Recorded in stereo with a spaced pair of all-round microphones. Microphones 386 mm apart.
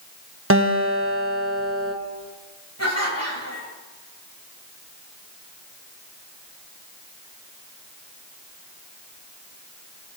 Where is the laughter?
40° left (ahead or behind), 5 m.